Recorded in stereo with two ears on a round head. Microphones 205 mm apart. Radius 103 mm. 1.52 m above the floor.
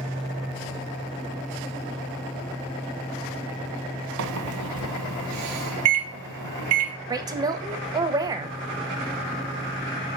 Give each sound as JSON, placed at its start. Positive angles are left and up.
{"t": 4.2, "sound": "a microwave", "side_deg": -70, "distance_m": 0.7}
{"t": 7.1, "sound": "a woman speaking", "side_deg": -15, "distance_m": 0.5}